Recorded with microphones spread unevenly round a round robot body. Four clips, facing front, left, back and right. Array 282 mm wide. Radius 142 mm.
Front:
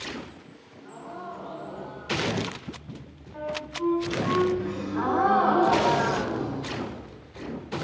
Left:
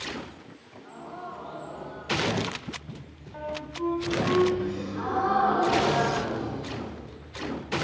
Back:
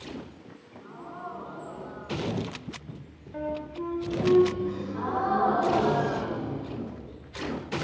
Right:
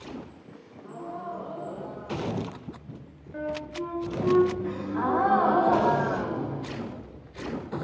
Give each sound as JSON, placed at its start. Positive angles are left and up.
{"t": 0.5, "sound": "a gasp", "azimuth_deg": -100, "distance_m": 1.7}
{"t": 3.3, "sound": "a flute", "azimuth_deg": -125, "distance_m": 1.5}
{"t": 4.6, "sound": "a gasp", "azimuth_deg": -55, "distance_m": 5.5}